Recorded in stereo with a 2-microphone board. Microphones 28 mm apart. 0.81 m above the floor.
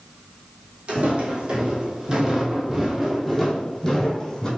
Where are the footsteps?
50° right (ahead or behind), 1.6 m; by 4.5 s 20° left (ahead or behind), 1.5 m.